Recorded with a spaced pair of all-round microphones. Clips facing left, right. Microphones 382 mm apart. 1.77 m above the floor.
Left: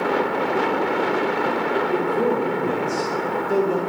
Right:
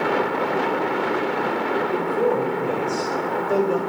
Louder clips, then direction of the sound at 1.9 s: Even; 25° left (ahead or behind).